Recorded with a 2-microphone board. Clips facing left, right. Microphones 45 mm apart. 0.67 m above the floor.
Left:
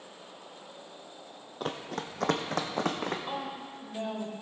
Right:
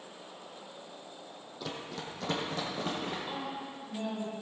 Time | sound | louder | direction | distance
1.6 | running footsteps | left 5 dB | 45° left (ahead or behind) | 1.0 m
3.3 | a woman speaking | left 2 dB | 35° left (ahead or behind) | 3.5 m